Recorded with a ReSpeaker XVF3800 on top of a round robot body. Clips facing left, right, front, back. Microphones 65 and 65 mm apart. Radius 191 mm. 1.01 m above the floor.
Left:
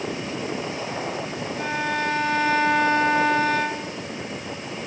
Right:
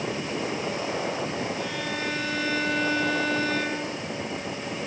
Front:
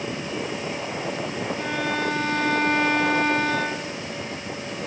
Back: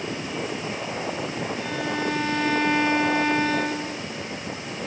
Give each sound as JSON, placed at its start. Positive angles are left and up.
{"t": 1.6, "sound": "a violin", "azimuth_deg": 45, "distance_m": 4.0}